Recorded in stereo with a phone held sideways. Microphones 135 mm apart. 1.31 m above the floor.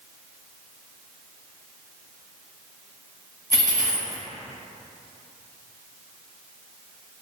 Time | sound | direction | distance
3.5 | a dropped coin | 25° right (ahead or behind) | 0.7 m